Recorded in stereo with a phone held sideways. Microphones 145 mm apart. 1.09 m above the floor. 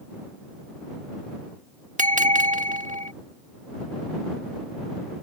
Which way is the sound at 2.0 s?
60° right (ahead or behind).